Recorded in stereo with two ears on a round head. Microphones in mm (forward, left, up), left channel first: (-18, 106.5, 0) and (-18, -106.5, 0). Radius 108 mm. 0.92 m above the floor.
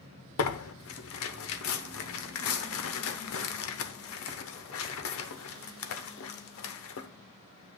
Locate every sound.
0.4 s tearing paper: 60° left (ahead or behind), 0.9 m